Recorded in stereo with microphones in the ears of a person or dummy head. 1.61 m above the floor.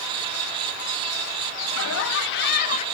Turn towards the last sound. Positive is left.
turn(degrees=35)  # may be behind; listen again after turning